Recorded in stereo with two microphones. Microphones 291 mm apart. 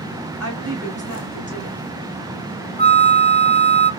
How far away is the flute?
About 0.5 m.